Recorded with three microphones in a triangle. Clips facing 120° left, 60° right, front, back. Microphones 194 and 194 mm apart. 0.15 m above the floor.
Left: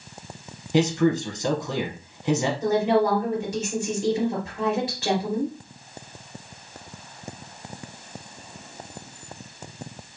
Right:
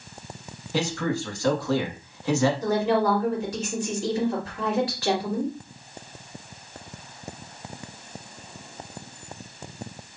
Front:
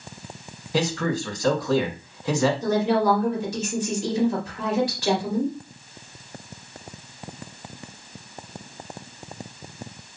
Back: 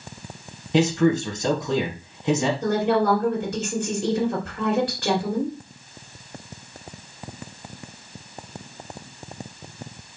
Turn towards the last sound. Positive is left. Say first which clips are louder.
# left 2 dB, even
turn(degrees=-175)